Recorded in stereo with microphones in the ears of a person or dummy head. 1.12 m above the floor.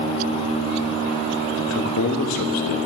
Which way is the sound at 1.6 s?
75° left (ahead or behind).